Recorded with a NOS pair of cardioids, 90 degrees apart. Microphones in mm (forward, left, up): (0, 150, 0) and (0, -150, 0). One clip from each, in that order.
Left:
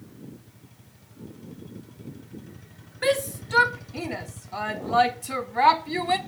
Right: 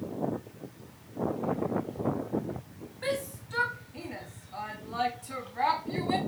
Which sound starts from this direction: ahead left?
A shout, at 3.0 s.